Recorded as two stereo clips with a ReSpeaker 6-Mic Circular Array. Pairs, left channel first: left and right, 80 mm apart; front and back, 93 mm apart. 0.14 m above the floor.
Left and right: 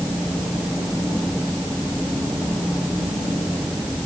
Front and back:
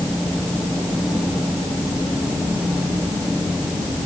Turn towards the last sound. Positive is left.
No sound to turn to.